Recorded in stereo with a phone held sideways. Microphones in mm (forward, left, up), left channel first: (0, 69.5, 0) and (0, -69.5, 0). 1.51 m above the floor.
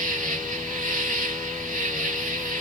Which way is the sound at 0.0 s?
75° right (ahead or behind).